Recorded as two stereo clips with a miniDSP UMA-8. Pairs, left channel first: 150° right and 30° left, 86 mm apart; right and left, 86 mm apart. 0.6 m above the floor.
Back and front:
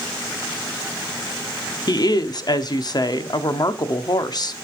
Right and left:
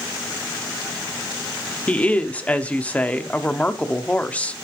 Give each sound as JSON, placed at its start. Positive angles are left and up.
{"t": 1.9, "sound": "a woman speaking", "azimuth_deg": -160, "distance_m": 0.9}